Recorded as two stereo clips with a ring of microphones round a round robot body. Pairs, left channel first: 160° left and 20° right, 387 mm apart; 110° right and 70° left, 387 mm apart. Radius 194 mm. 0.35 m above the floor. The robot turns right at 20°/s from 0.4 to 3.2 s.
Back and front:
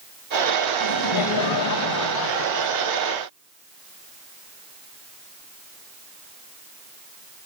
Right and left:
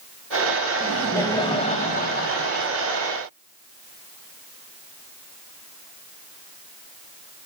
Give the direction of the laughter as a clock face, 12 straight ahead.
7 o'clock.